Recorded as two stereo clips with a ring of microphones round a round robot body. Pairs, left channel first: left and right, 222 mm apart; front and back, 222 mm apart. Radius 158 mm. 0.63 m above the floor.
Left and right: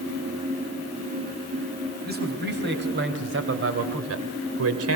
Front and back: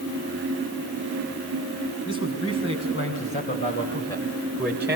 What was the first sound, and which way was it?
A man speaking, 45° right.